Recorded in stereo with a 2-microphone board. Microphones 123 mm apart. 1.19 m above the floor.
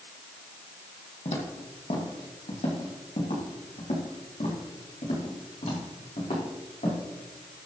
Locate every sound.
1.2 s footsteps: 65° left (ahead or behind), 2.5 m; by 7.0 s 75° left (ahead or behind), 6 m